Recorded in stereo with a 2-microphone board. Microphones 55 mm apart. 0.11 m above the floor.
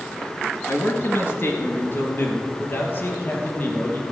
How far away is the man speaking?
About 1.9 m.